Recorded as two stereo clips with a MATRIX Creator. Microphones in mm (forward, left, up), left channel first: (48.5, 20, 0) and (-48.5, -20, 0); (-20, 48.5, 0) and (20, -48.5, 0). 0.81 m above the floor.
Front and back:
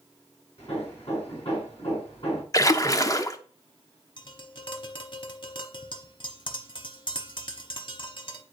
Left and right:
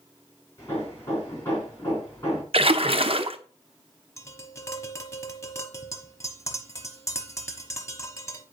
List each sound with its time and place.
0.6 s hammering: 45° left, 5 m
2.5 s a splash: 35° right, 0.7 m
4.2 s tapping: 55° left, 1.0 m